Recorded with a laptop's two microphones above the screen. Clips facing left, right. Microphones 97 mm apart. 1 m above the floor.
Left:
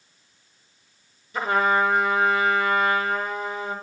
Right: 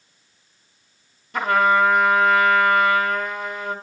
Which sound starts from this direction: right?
A trumpet, at 1.3 s.